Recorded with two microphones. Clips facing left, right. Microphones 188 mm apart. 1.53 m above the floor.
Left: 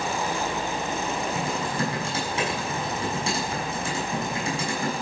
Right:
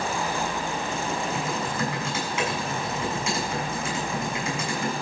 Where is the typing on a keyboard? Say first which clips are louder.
Left 1 dB; 30° left (ahead or behind), 7 m.